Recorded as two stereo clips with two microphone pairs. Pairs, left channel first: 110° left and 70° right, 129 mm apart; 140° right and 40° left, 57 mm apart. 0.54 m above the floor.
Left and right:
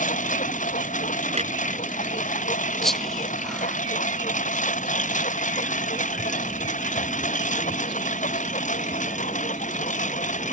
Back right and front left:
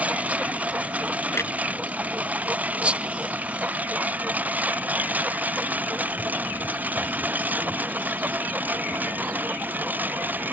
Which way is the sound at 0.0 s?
100° left.